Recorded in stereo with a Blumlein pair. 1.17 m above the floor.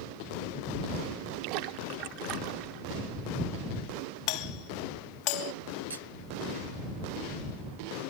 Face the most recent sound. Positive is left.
turn(degrees=-65)